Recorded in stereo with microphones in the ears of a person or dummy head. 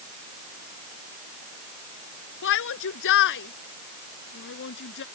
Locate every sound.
2.4 s a shout: 55° left (ahead or behind)